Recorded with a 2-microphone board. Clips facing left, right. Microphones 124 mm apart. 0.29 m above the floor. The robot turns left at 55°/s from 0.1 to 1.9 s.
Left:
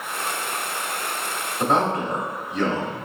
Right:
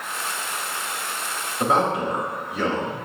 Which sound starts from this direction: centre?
A man speaking, at 1.6 s.